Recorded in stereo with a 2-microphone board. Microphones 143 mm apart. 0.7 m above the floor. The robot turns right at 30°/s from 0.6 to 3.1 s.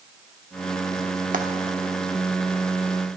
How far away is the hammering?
I don't hear hammering.